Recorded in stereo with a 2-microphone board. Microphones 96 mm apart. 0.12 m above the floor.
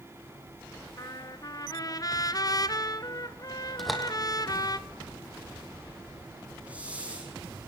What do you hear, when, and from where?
1.0 s a trumpet: 40° left (ahead or behind), 1.0 m
3.8 s a door slam: centre (ahead or behind), 4 m
6.7 s a hiss: 15° right (ahead or behind), 7 m